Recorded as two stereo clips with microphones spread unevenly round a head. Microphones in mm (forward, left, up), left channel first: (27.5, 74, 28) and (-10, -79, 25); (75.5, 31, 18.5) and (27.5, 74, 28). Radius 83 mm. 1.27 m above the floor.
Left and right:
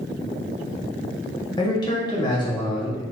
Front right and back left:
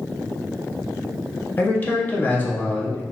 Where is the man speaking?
15° left, 1.1 m.